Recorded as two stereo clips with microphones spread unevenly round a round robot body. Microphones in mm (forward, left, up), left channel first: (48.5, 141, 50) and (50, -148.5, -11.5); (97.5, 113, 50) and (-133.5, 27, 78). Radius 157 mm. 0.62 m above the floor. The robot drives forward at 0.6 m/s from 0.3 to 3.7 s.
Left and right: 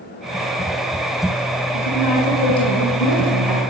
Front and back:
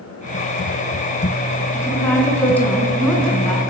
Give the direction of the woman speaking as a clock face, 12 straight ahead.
9 o'clock.